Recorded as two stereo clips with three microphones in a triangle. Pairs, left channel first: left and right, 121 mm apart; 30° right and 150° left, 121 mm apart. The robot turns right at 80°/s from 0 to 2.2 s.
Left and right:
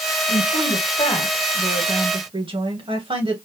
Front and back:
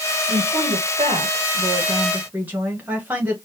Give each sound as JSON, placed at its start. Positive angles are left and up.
{"t": 0.3, "sound": "a woman speaking", "azimuth_deg": 75, "distance_m": 2.0}